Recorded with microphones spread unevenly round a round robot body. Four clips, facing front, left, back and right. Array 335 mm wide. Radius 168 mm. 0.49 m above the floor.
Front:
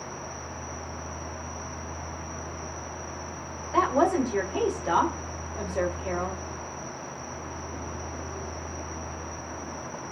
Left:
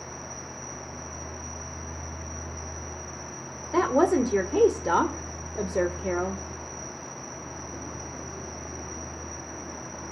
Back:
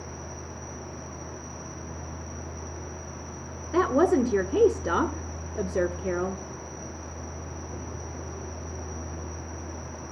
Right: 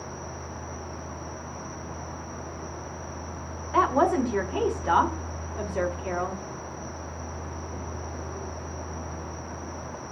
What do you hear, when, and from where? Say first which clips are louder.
0.0 s an insect: right 2 dB, front 2 dB; 160° left, 5.5 m
3.7 s a woman speaking: even, back 1 dB; 140° left, 1.8 m